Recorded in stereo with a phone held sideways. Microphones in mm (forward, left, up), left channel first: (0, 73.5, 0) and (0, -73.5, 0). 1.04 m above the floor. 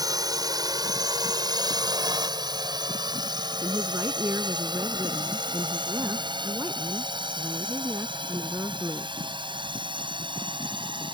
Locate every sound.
0.0 s a drone: 25° right (ahead or behind); by 11.2 s 35° right (ahead or behind)
3.6 s a woman speaking: 20° right (ahead or behind)